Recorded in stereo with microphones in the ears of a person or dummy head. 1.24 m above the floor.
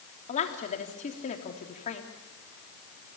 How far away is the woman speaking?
About 3 m.